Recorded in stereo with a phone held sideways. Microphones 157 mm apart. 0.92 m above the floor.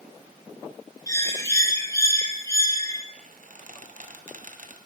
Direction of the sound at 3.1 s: 60° right (ahead or behind).